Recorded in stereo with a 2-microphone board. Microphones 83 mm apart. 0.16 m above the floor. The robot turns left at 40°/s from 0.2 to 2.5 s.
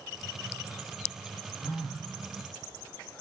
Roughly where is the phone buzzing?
Centre.